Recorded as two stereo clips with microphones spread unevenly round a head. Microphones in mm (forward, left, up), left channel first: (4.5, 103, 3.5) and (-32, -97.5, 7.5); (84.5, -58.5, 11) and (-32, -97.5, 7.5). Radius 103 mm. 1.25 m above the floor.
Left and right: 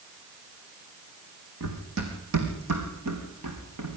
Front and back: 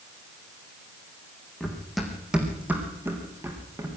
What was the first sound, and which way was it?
Running footsteps, 65° right.